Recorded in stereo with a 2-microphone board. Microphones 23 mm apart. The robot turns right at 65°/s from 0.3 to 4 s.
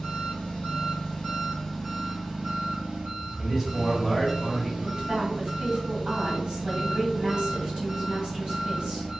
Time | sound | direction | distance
0.0 | an engine running | 80° left | 1.2 m
3.4 | a man speaking | 35° right | 1.0 m
4.8 | a woman speaking | 50° right (ahead or behind) | 1.9 m